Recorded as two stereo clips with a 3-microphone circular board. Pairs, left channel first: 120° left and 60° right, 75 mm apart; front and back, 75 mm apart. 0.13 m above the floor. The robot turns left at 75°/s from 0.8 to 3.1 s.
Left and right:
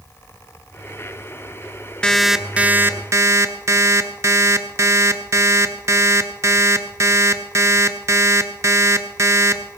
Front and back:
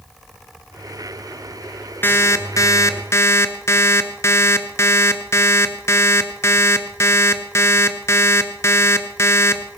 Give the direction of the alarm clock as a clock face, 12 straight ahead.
10 o'clock.